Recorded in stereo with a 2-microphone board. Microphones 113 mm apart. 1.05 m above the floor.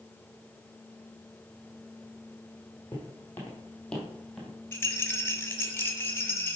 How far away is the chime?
No chime in this recording.